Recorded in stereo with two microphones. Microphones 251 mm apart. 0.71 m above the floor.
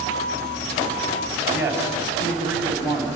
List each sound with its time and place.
1.5 s a man speaking: 10° right (ahead or behind), 4.5 m